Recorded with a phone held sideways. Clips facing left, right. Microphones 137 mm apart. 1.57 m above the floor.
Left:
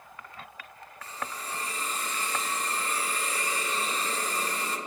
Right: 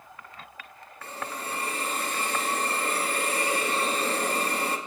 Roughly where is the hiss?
Right.